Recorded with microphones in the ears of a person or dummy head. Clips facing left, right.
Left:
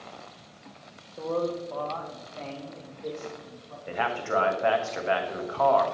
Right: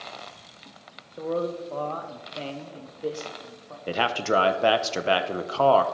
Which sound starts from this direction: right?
A man speaking, at 3.9 s.